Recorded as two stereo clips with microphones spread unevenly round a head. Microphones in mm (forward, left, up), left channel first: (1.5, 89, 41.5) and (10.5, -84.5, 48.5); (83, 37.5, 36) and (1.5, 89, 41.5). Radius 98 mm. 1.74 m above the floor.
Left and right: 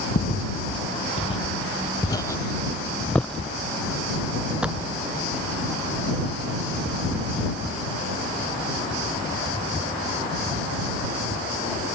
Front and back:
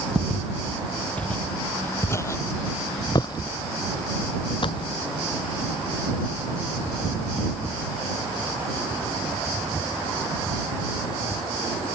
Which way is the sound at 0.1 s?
65° left.